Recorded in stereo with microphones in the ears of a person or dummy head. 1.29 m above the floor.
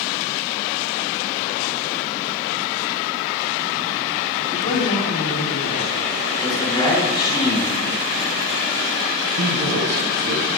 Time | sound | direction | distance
4.5 | a man speaking | 30° left (ahead or behind) | 3.5 m
6.4 | a man speaking | 20° left (ahead or behind) | 4 m
9.3 | a man speaking | 80° right | 2.5 m